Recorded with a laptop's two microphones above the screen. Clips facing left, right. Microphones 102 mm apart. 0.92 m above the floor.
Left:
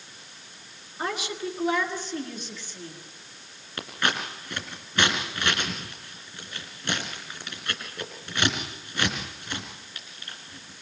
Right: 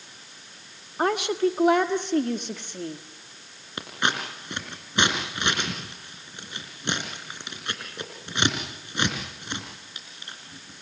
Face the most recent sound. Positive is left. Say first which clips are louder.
# right 1 dB
turn(degrees=-20)  # may be behind; listen again after turning